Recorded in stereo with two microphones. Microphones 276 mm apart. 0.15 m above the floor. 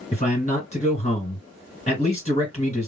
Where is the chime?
I don't hear a chime.